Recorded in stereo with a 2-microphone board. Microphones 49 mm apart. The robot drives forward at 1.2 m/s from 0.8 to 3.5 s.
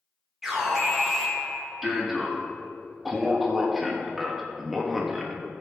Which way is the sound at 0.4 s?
5° right (ahead or behind).